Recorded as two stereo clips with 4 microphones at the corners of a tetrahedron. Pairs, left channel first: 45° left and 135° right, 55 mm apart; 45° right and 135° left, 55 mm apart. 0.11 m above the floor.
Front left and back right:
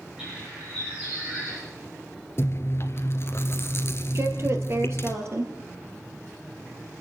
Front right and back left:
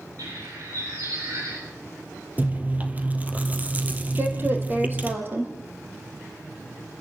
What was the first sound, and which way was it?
A bird, 150° left.